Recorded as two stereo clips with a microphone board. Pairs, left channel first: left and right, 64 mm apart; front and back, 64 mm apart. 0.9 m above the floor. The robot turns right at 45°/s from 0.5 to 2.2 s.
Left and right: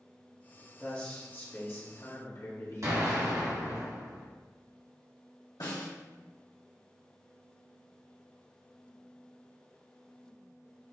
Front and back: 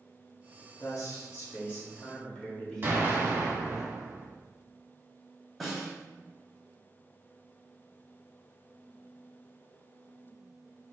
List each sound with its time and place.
0.8 s a man speaking: 5° left, 1.3 m; by 3.8 s 70° left, 1.3 m
2.8 s an explosion: 125° right, 1.6 m
5.6 s a snare drum: 90° left, 1.7 m